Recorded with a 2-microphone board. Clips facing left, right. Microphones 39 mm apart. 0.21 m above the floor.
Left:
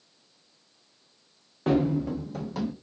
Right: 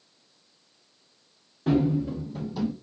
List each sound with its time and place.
1.7 s running footsteps: 55° left (ahead or behind), 0.9 m